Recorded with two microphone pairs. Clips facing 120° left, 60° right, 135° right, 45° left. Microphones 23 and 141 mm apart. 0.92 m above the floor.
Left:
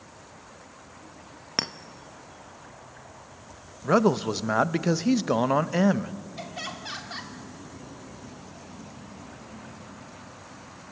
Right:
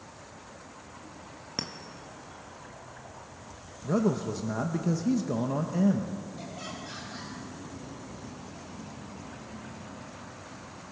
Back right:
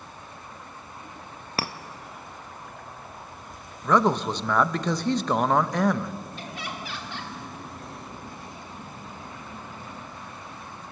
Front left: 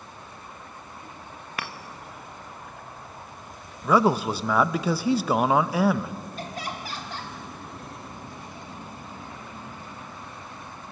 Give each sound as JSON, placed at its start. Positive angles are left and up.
{"t": 1.6, "sound": "a clink", "azimuth_deg": 170, "distance_m": 0.7}
{"t": 3.8, "sound": "a man speaking", "azimuth_deg": 125, "distance_m": 0.5}
{"t": 6.4, "sound": "laughter", "azimuth_deg": 90, "distance_m": 3.0}